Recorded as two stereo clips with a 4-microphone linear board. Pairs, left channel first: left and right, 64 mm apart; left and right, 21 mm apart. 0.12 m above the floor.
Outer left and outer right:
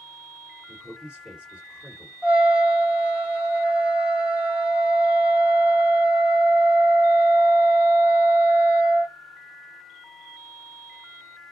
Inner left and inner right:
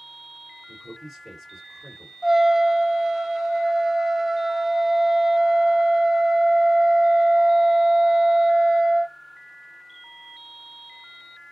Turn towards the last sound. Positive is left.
turn(degrees=-20)  # may be behind; listen again after turning